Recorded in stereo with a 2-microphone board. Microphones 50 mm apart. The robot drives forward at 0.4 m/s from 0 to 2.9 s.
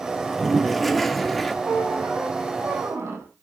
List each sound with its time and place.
0.2 s a toilet flushing: centre (ahead or behind), 1.1 m
1.6 s a squeak: 65° right (ahead or behind), 3.5 m; by 3.3 s 70° right (ahead or behind), 3 m